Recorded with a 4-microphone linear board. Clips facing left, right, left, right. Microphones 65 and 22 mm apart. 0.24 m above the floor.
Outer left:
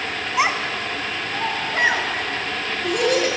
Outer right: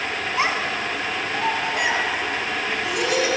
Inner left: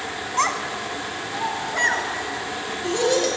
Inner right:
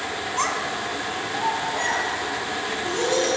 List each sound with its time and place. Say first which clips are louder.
0.4 s a child speaking: outer left 2 dB, inner left 3 dB; 15° left (ahead or behind), 1.4 m; by 3.3 s 45° left (ahead or behind), 3.5 m